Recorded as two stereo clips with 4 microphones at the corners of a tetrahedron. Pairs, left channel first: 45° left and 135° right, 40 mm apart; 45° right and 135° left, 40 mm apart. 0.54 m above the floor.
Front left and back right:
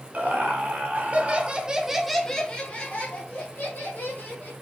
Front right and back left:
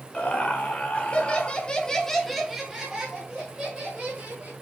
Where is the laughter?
95° right, 1.5 m; by 4.5 s 80° left, 1.7 m.